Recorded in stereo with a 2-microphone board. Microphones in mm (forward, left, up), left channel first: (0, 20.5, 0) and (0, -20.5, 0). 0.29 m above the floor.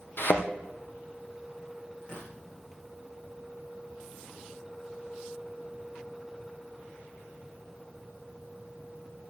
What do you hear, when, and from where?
0.2 s a thud: 55° left (ahead or behind), 2 m
2.0 s tearing paper: 30° left (ahead or behind), 9 m